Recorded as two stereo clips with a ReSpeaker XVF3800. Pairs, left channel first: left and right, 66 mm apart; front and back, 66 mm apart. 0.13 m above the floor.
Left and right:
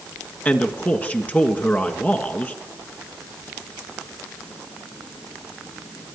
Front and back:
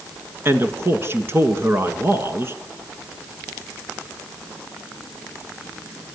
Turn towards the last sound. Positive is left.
turn(degrees=145)